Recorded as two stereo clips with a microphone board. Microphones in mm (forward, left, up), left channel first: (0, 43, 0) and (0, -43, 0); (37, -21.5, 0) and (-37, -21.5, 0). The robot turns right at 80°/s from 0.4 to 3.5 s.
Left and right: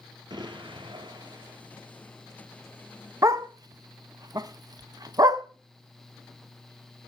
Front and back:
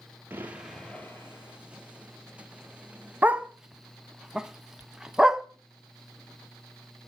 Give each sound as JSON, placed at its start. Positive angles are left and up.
{"t": 0.3, "sound": "an explosion", "azimuth_deg": -115, "distance_m": 1.2}
{"t": 3.2, "sound": "a dog barking", "azimuth_deg": -125, "distance_m": 0.5}